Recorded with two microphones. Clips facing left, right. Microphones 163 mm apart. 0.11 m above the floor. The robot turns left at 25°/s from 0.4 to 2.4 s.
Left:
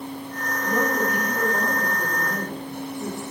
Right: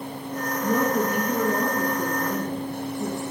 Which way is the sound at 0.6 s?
130° right.